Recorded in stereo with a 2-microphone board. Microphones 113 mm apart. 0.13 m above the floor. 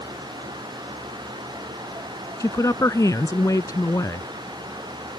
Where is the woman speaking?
30° left (ahead or behind).